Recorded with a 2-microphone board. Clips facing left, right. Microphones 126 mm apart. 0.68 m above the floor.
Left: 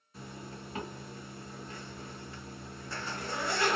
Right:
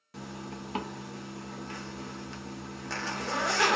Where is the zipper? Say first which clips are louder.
Right 5 dB; 75° right (ahead or behind), 0.6 m.